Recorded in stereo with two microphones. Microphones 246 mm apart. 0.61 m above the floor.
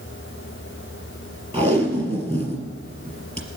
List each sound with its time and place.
1.5 s tape being pulled: 25° right (ahead or behind), 1.8 m